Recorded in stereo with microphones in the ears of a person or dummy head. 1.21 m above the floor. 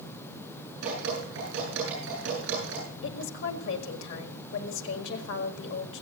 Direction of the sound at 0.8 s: 70° right (ahead or behind).